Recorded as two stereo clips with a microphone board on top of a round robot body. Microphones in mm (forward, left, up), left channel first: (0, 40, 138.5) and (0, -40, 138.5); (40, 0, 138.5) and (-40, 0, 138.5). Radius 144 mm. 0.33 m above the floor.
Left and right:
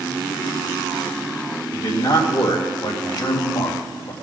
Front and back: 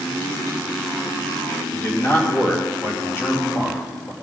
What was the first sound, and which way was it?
A man speaking, 60° left.